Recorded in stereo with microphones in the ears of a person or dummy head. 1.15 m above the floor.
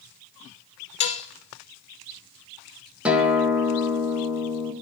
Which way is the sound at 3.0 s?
10° right (ahead or behind).